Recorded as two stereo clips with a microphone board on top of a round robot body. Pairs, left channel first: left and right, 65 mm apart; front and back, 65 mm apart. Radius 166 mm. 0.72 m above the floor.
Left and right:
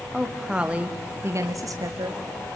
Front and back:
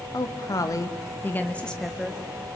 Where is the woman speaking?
Straight ahead, 2.5 m; by 2.5 s 105° right, 2.5 m.